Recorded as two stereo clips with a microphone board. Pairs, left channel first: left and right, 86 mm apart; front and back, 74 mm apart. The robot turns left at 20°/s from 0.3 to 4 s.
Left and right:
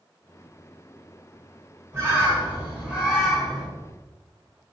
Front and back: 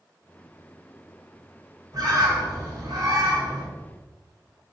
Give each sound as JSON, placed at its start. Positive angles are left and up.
{"t": 1.9, "sound": "a bird", "azimuth_deg": -150, "distance_m": 1.6}